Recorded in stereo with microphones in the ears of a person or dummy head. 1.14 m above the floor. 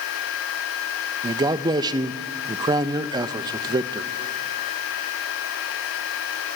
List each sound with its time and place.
1.2 s a man speaking: 15° right (ahead or behind), 0.7 m